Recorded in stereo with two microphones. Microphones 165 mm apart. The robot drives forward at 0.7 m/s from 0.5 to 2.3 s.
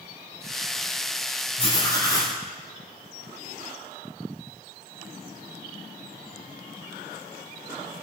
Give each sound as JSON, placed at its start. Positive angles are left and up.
{"t": 1.6, "sound": "writing", "side_deg": 40, "distance_m": 0.5}